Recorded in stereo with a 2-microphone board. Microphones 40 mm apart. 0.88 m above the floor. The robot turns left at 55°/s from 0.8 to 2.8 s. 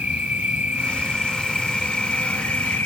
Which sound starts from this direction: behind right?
An insect, at 0.0 s.